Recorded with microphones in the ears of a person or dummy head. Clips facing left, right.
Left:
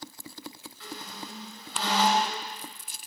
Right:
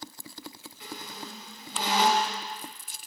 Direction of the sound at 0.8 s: 15° right (ahead or behind).